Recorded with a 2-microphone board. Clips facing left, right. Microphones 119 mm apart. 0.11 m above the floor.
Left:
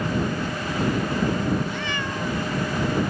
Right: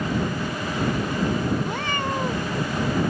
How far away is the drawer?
No drawer in this recording.